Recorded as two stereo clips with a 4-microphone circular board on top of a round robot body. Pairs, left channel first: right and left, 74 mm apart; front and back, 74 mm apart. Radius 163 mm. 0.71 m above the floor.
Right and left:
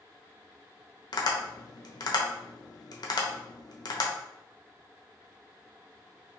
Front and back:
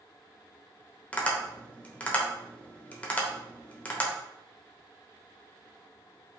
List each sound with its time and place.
1.1 s tapping: 70° right, 0.7 m